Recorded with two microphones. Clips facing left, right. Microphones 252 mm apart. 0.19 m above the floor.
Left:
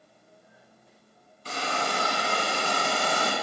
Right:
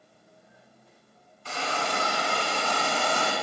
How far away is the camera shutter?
I don't hear a camera shutter.